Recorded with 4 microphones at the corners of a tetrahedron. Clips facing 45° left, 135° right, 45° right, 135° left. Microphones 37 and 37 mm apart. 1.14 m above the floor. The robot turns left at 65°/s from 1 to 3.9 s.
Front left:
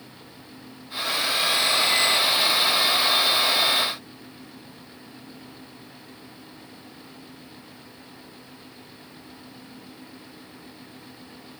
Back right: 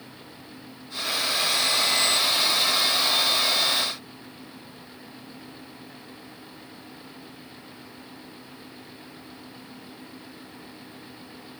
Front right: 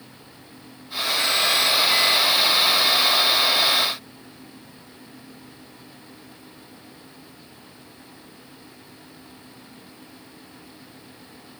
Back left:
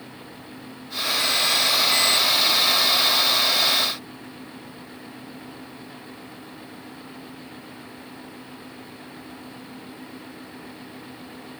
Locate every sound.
Only background noise.